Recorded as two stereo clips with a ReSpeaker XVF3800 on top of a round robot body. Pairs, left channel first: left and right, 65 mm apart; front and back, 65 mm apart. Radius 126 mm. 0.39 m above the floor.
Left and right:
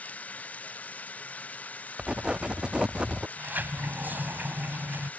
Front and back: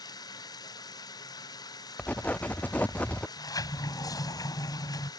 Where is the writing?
30° right.